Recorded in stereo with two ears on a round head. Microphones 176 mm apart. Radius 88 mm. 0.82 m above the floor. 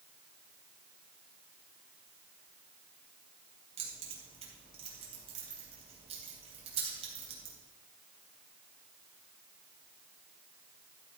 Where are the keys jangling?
30° right (ahead or behind), 3.5 m.